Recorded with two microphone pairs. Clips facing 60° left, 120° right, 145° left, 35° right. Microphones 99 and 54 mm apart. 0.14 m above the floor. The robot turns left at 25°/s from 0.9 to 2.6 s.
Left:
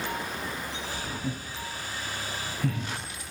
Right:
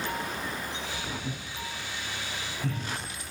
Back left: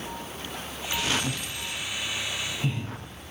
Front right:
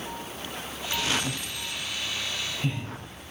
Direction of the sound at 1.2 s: 100° left.